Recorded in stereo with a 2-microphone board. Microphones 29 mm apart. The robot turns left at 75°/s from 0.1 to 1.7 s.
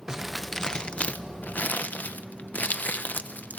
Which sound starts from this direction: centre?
Crumpling, at 0.1 s.